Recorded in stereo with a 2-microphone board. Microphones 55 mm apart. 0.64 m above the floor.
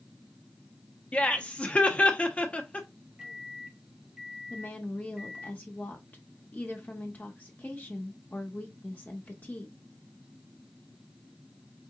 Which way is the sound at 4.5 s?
30° left (ahead or behind).